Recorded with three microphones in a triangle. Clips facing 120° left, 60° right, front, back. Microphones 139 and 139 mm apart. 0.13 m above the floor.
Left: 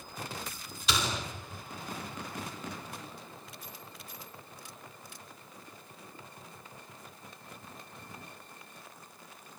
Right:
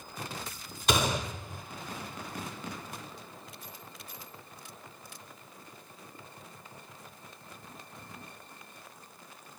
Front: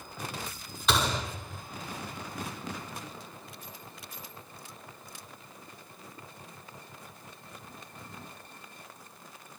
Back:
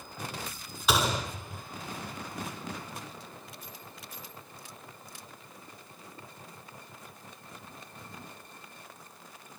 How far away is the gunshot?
About 1.6 m.